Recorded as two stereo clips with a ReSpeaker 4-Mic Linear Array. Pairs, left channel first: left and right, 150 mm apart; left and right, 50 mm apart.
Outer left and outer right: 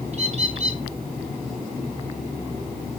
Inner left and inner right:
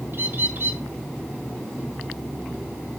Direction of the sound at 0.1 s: 45° right (ahead or behind).